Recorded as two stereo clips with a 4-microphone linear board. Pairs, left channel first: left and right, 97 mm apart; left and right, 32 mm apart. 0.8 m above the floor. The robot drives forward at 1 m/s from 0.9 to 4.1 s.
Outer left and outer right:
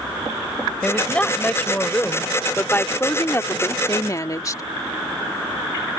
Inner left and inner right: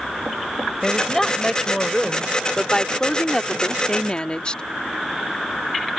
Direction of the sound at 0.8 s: 15° left (ahead or behind).